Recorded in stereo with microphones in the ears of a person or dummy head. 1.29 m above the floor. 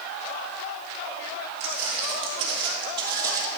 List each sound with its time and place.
1.6 s footsteps: 35° right (ahead or behind), 1.5 m; by 3.5 s 20° right (ahead or behind), 1.8 m